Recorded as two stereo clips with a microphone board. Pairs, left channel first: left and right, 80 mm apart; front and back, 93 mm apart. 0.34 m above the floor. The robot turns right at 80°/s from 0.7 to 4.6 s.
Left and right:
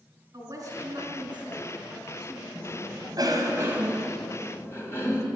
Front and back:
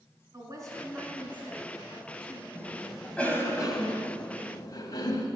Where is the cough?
125° right, 2.5 m; by 5.3 s 40° left, 2.5 m.